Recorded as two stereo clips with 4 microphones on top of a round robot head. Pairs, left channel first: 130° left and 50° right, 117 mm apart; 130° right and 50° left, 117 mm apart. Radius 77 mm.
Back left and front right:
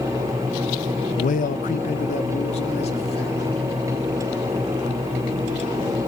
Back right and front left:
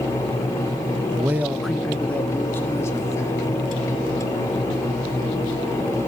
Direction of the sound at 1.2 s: 115° left.